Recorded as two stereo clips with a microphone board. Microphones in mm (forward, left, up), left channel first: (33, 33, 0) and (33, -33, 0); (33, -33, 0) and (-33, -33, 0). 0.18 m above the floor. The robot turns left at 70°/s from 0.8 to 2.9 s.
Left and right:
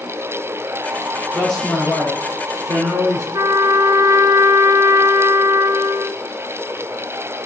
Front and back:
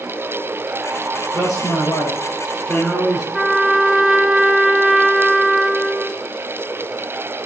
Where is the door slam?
I don't hear a door slam.